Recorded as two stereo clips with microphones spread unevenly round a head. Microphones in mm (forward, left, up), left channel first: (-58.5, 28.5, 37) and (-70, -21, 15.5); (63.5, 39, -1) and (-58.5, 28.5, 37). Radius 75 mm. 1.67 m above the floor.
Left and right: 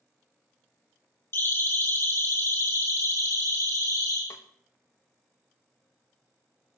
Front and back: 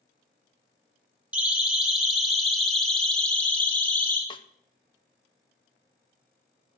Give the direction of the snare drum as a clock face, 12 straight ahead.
10 o'clock.